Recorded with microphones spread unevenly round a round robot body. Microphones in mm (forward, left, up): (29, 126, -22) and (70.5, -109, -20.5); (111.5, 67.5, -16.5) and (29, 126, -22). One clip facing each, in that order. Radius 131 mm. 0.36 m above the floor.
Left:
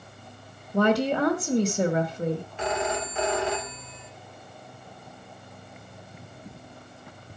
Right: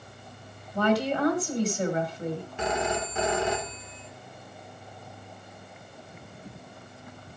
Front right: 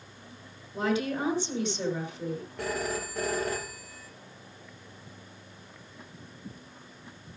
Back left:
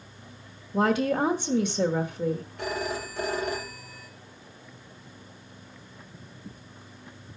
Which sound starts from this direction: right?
A phone ringing, at 2.6 s.